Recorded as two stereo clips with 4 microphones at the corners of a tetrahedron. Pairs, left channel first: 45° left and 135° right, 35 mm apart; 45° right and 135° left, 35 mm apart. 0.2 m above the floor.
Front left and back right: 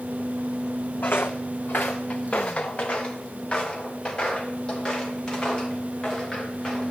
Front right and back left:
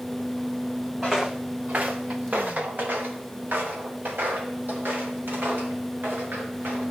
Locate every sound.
1.0 s footsteps: 60° left, 0.8 m; by 6.9 s 120° left, 4 m